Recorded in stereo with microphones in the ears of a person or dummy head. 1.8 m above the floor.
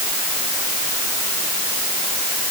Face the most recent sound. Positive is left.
No sound to turn to.